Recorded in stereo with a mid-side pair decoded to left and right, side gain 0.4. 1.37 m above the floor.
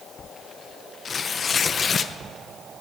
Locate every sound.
1.1 s tearing paper: 45° left, 0.8 m